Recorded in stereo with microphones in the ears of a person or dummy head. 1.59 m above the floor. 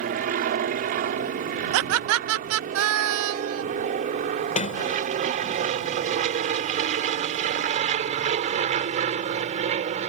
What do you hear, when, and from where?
0.0 s an aircraft: 45° right (ahead or behind); by 10.1 s 35° right (ahead or behind)
1.7 s laughter: 75° right (ahead or behind)
4.5 s a sliding door: 40° left (ahead or behind)